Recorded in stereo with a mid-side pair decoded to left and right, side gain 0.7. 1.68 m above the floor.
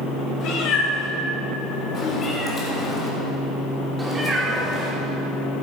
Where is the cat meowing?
55° left, 4 m; by 5.6 s 45° right, 3 m.